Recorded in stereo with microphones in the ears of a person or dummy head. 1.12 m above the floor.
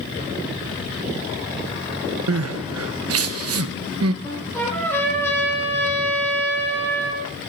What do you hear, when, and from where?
2.3 s crying: 65° right (ahead or behind), 0.8 m
4.2 s a trumpet: 15° left (ahead or behind), 8 m